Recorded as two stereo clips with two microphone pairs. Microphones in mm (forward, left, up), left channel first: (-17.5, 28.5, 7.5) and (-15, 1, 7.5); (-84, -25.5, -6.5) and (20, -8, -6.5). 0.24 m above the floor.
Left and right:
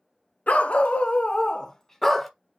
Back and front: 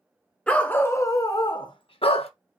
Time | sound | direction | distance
0.5 | a dog barking | 115° left | 1.0 m